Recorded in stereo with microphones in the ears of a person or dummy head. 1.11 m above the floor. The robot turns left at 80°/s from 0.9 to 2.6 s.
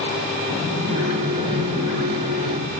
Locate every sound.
0.5 s a sliding door: 125° right, 2.0 m; by 2.7 s 100° left, 2.0 m